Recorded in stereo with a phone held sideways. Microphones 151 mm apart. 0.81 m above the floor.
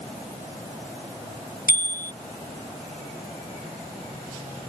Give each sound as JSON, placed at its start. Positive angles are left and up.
{"t": 1.7, "sound": "a bicycle bell", "side_deg": 85}